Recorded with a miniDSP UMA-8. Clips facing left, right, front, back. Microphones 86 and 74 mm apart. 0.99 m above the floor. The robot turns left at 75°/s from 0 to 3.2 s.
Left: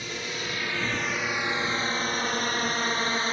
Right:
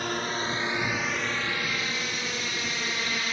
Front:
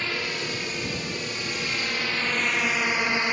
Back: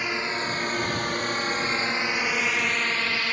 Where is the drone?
105° right; by 3.3 s 60° left.